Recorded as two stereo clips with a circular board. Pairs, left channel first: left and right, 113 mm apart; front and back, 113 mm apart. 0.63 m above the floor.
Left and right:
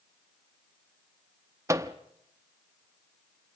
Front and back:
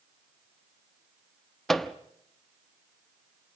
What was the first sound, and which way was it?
A microwave, 85° right.